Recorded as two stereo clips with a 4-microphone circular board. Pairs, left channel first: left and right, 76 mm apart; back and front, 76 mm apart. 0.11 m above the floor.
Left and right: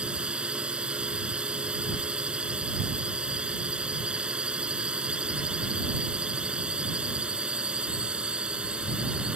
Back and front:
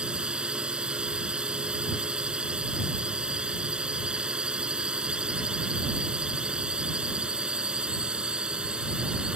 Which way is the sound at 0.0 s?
50° right.